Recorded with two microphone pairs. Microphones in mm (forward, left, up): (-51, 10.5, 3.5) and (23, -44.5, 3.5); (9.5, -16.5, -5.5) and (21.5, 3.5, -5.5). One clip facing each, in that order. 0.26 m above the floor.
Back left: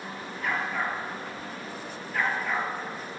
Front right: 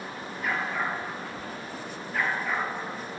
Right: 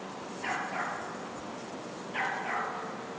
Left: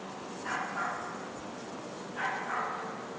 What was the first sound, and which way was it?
A dog barking, 125° right.